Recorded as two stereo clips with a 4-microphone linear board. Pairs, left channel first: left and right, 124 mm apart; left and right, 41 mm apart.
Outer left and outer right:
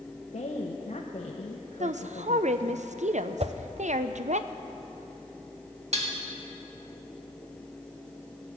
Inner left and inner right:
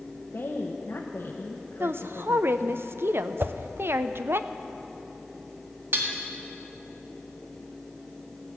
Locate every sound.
0.3 s a woman speaking: 75° left (ahead or behind), 0.9 m
1.8 s a woman speaking: 70° right (ahead or behind), 0.5 m
3.4 s a whoosh: 55° right (ahead or behind), 0.5 m
5.9 s dishes clattering: 60° right (ahead or behind), 1.7 m